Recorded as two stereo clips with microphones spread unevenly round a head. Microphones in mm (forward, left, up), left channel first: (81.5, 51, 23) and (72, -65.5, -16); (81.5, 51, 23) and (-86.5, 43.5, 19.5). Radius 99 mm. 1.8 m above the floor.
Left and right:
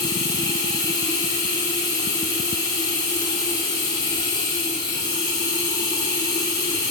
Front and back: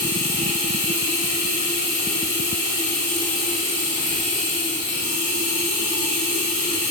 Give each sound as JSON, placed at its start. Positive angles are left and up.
{"t": 0.0, "sound": "running water", "azimuth_deg": 45, "distance_m": 2.5}